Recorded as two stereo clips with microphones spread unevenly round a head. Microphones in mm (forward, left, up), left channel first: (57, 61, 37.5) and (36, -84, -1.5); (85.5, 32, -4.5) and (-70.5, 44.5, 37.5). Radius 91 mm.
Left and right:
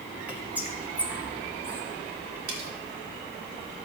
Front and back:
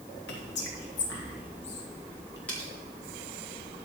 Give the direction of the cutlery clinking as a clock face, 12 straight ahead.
3 o'clock.